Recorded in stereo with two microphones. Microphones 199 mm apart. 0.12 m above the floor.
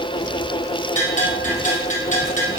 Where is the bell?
40° left (ahead or behind), 5.5 m.